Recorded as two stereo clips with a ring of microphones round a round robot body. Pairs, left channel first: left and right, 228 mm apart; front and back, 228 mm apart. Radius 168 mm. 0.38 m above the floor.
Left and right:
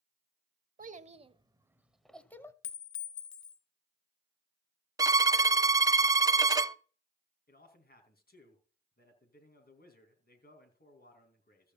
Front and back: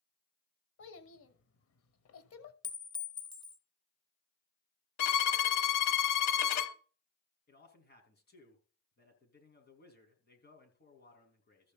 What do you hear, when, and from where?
0.8 s a child speaking: 35° right, 1.1 m; by 2.5 s 10° left, 1.3 m
2.6 s a clink: 70° left, 1.3 m
5.0 s a violin: 10° right, 0.6 m
7.5 s a man speaking: 45° left, 4 m